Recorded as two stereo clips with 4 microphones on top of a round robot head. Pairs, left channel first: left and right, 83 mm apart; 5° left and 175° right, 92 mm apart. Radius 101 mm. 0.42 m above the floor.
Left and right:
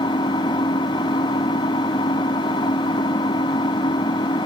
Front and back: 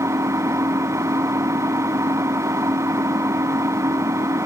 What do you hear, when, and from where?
0.0 s an engine running: 125° left